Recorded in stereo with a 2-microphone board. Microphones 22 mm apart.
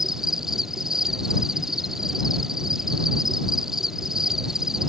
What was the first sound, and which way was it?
An insect, 20° right (ahead or behind).